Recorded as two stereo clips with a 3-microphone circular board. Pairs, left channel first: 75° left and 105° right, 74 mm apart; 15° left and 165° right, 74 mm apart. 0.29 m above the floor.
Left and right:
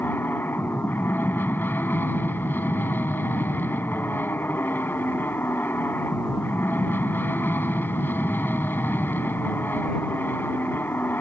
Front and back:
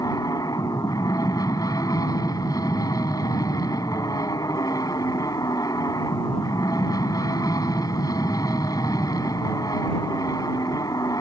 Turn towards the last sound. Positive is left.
turn(degrees=20)